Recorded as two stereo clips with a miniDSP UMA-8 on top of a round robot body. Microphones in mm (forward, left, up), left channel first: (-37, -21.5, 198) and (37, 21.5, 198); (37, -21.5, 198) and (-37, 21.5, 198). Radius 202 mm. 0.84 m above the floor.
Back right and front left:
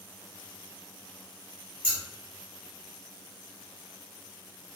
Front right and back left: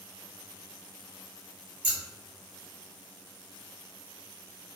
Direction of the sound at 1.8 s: 130° left.